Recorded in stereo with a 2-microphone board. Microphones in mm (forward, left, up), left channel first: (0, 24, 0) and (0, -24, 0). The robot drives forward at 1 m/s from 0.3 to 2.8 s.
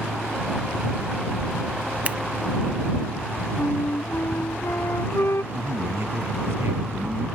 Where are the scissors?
30° right (ahead or behind).